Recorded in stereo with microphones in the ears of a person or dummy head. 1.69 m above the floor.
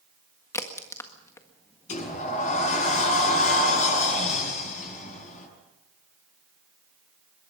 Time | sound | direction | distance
0.5 | a crack | 15° left (ahead or behind) | 1.6 m
1.9 | a sliding door | 35° left (ahead or behind) | 7.5 m